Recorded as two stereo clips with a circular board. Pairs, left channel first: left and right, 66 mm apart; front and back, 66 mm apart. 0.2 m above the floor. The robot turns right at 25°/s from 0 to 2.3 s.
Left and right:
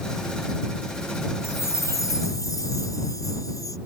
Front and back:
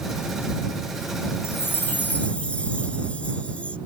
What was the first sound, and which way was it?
A chime, 50° left.